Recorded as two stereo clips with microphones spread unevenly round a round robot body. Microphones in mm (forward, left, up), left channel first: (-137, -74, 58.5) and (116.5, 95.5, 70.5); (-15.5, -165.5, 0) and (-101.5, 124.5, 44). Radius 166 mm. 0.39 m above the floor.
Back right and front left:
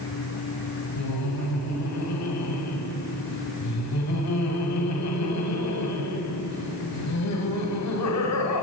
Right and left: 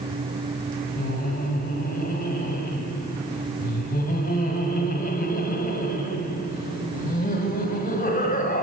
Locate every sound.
1.0 s laughter: 130° right, 2.5 m